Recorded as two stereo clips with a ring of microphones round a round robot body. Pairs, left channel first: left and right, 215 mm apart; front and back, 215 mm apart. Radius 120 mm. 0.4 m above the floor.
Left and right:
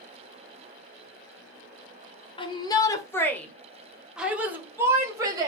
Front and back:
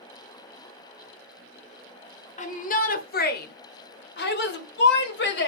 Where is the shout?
35° left, 1.5 m; by 5.5 s 20° right, 2.5 m.